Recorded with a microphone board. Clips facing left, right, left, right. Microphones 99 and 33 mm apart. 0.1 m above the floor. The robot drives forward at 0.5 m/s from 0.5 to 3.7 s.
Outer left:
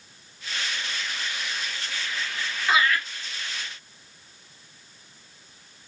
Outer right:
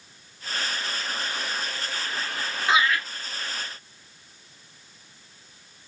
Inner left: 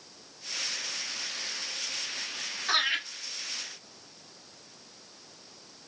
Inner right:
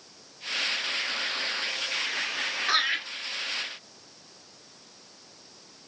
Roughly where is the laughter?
Right.